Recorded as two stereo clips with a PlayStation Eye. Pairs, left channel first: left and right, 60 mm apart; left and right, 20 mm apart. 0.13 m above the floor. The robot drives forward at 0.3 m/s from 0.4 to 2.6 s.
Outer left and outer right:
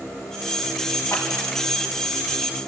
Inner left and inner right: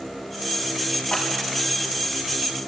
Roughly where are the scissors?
Left.